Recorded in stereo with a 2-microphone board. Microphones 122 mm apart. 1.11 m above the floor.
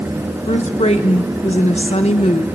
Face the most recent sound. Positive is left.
turn(degrees=65)  # may be behind; listen again after turning